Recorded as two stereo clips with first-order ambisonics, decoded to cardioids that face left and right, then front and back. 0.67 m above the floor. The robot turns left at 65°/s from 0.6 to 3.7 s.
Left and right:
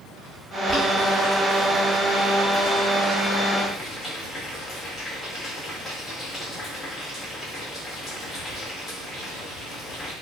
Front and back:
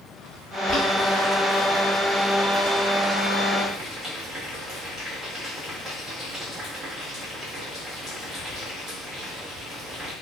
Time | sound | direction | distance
0.7 | boiling | 10° right | 1.1 m